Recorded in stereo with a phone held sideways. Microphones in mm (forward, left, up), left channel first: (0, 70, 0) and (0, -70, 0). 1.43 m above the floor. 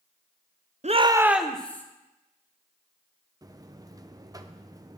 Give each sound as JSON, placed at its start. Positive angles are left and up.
{"t": 0.8, "sound": "a shout", "side_deg": -55, "distance_m": 0.6}
{"t": 3.4, "sound": "a buzzer", "side_deg": -25, "distance_m": 0.6}